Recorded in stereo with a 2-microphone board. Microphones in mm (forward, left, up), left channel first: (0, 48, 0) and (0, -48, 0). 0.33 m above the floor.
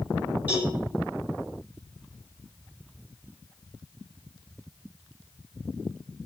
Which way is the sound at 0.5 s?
20° right (ahead or behind).